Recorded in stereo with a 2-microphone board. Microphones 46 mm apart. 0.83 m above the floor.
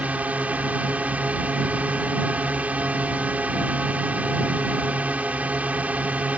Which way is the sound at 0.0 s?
35° right (ahead or behind).